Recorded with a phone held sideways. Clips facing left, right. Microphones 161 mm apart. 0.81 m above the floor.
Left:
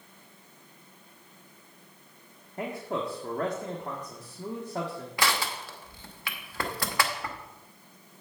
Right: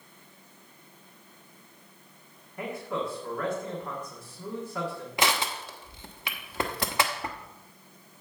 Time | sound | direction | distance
2.6 | a man speaking | 35° left (ahead or behind) | 1.6 m
5.2 | crushing | 20° right (ahead or behind) | 1.0 m